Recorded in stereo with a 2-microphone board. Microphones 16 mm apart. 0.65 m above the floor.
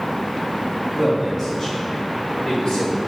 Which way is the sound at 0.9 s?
10° right (ahead or behind).